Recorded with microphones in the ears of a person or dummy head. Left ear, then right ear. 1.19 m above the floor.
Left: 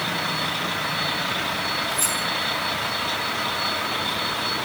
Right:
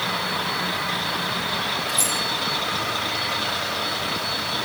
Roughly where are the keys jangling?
Right.